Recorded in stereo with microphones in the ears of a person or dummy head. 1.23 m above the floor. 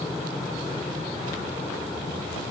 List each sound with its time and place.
0.0 s an aircraft: 5° left (ahead or behind)